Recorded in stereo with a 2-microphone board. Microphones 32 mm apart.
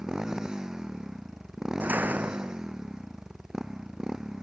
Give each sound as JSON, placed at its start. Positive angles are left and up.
{"t": 0.0, "sound": "a motorcycle", "side_deg": -20}
{"t": 1.8, "sound": "a door slam", "side_deg": -75}